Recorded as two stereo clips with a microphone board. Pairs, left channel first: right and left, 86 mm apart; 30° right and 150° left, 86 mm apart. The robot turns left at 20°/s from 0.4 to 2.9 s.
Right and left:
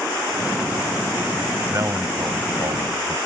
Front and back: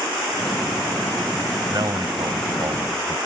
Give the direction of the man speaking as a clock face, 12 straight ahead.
8 o'clock.